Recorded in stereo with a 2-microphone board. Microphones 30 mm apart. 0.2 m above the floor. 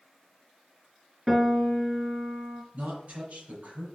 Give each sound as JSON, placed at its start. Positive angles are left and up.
{"t": 1.3, "sound": "a piano", "side_deg": -10, "distance_m": 1.4}
{"t": 2.7, "sound": "a woman speaking", "side_deg": -50, "distance_m": 4.0}